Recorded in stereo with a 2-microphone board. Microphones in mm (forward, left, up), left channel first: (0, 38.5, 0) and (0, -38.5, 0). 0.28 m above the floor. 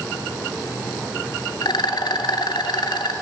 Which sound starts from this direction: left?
A rattle, at 1.6 s.